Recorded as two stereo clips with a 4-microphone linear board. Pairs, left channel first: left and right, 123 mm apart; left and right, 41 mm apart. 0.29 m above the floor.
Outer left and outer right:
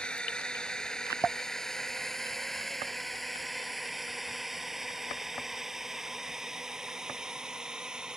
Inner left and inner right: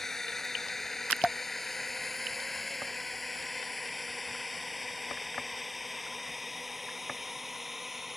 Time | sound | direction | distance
0.0 | a drone | 10° left (ahead or behind) | ?